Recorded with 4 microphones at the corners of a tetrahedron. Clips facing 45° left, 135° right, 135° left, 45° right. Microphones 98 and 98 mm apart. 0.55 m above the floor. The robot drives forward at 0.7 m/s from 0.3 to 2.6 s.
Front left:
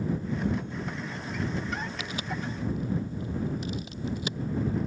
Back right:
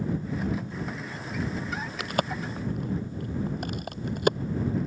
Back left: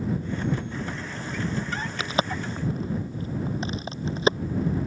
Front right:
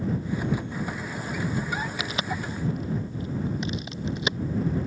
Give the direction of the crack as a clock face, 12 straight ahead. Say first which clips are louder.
Back right 5 dB, back left 3 dB; 6 o'clock.